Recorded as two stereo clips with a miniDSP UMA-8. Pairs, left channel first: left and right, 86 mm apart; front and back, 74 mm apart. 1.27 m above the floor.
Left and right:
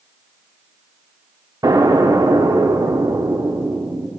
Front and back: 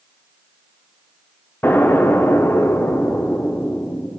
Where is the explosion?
60° right, 0.8 m.